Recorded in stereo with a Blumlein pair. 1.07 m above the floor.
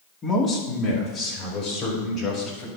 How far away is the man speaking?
About 1.9 m.